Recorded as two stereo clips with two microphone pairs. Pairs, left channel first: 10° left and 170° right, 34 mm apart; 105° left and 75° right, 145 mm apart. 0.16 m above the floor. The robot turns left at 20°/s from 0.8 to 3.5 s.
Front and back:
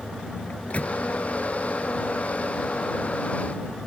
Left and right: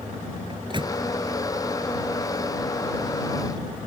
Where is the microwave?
30° right.